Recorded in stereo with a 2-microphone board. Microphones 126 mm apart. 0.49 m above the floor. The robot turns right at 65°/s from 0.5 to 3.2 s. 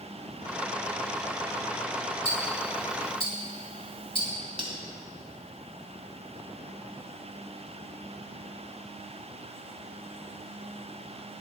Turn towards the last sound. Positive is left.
turn(degrees=-45)  # may be behind; listen again after turning